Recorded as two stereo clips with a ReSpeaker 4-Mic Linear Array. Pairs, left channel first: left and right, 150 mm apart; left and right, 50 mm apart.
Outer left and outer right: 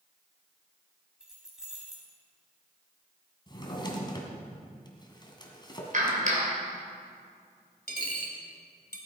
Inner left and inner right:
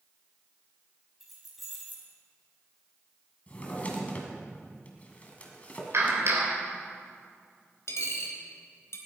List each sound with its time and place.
1.2 s keys jangling: 5° right (ahead or behind), 4.5 m
3.5 s a drawer: 30° left (ahead or behind), 2 m
5.9 s a clap: 60° right (ahead or behind), 3 m
7.9 s a dropped coin: 85° left, 2 m